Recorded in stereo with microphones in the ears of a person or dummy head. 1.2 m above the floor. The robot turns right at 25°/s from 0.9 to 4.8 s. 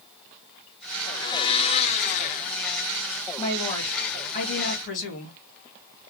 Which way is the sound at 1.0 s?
25° left.